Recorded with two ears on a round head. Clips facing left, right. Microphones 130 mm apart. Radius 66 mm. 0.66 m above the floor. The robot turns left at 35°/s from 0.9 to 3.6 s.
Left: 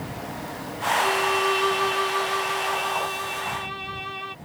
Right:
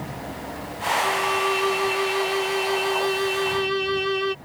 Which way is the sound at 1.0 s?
15° left.